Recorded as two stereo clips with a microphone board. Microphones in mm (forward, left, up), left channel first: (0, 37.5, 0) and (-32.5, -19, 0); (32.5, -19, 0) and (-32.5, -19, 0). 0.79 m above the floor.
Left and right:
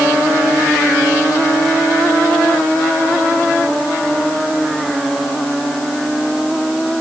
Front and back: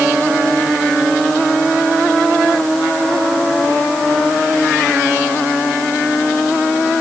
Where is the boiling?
No boiling in this recording.